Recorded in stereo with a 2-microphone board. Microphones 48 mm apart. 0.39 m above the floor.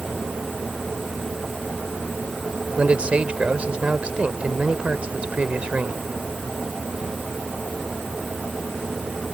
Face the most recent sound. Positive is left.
turn(degrees=-25)  # may be behind; listen again after turning